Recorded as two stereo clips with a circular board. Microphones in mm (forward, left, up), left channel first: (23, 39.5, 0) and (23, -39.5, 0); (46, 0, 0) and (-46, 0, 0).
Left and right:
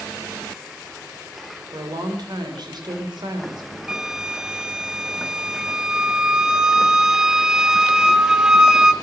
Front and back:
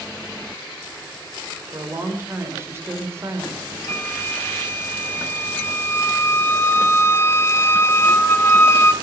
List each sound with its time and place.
1.7 s a woman speaking: 120° right, 2.5 m
3.9 s a flute: 15° right, 0.6 m